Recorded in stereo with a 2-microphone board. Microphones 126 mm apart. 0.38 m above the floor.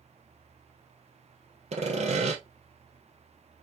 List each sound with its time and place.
1.7 s sawing: 60° right (ahead or behind), 1.6 m